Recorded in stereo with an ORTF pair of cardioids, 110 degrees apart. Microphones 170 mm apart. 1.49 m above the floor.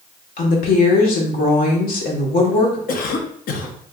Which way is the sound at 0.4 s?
60° left.